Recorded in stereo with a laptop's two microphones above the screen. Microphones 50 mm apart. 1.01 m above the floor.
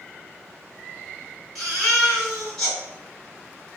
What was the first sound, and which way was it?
A baby crying, 5° left (ahead or behind).